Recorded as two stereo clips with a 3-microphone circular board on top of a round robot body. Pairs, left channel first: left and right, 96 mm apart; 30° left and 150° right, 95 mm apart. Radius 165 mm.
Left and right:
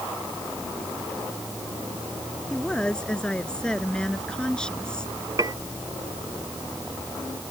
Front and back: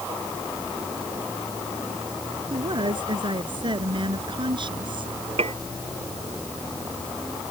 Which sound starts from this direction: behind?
A woman speaking, at 2.5 s.